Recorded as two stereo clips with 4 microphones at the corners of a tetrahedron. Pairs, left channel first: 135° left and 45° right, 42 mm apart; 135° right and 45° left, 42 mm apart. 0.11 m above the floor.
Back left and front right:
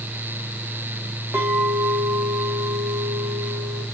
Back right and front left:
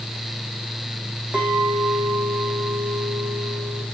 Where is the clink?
10° right, 6 m.